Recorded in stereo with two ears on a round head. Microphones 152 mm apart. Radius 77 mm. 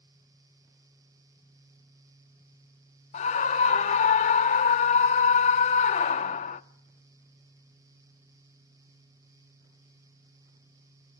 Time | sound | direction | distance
3.1 | a scream | 40° left (ahead or behind) | 0.7 m